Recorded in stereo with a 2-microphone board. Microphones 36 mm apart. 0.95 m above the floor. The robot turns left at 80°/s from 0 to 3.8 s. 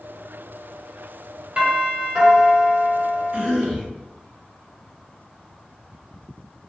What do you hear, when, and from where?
1.6 s a doorbell: 20° right (ahead or behind), 1.2 m; by 3.5 s 15° left (ahead or behind), 1.2 m
3.3 s a cough: 145° right, 1.4 m; by 3.9 s 175° left, 1.4 m